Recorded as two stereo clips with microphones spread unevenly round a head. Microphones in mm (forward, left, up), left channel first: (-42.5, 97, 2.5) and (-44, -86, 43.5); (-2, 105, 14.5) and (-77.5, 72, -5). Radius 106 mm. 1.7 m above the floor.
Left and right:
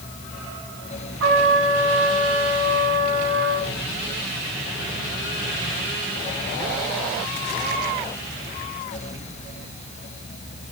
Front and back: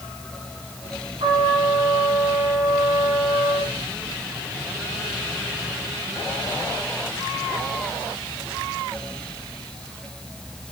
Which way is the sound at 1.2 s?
100° right.